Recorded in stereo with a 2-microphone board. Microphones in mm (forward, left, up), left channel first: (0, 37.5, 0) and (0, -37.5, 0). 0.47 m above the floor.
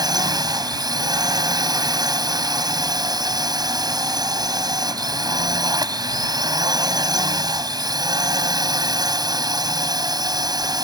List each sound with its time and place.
0.0 s a drone: 60° right (ahead or behind)